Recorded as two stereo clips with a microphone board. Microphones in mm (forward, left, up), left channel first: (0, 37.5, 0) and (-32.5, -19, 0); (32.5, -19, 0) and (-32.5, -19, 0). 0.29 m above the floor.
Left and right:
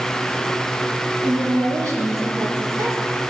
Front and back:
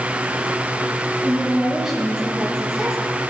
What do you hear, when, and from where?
1.2 s a woman speaking: 105° right, 6 m; by 3.0 s 95° right, 6.5 m